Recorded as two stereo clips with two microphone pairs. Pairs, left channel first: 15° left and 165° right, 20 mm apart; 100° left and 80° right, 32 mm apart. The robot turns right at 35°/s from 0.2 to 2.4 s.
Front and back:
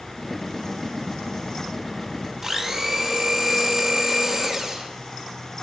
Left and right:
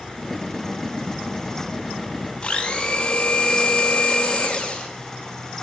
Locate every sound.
2.4 s a blender: 140° left, 1.1 m